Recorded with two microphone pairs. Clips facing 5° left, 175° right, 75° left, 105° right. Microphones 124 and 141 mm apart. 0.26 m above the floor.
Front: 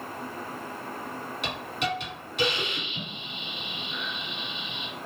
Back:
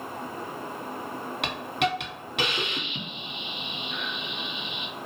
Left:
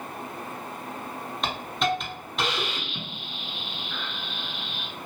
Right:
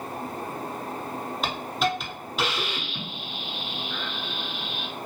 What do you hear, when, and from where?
1.4 s a hiss: 165° left, 0.7 m